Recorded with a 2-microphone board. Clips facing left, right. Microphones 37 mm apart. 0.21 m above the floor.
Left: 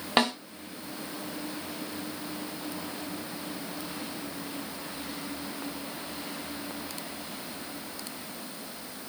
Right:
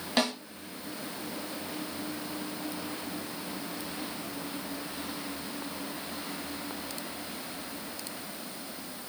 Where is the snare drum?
30° left (ahead or behind), 1.3 m.